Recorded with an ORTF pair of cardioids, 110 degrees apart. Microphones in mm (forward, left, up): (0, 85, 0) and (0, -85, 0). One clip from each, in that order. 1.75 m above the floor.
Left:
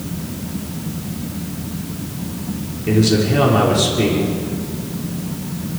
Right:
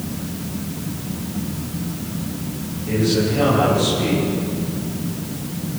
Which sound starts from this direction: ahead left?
A man speaking, at 2.9 s.